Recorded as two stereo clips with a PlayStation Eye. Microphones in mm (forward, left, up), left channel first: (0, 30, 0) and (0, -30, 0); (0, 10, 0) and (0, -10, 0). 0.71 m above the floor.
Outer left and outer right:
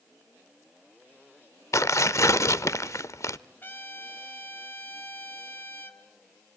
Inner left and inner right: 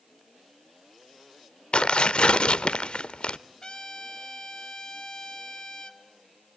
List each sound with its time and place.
1.7 s tearing paper: 50° left (ahead or behind), 0.6 m
3.6 s a trumpet: 35° left (ahead or behind), 2.5 m